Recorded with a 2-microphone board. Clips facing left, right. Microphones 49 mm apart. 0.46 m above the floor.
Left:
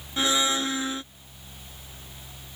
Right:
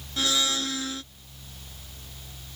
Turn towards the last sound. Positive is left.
turn(degrees=25)  # may be behind; listen again after turning